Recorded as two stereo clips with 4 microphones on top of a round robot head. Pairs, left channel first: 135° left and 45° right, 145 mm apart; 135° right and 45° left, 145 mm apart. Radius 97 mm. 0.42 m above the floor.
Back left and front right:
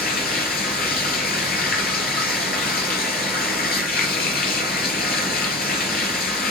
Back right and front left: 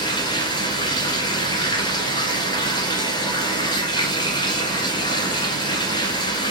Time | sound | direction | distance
0.0 | running water | 160° left | 2 m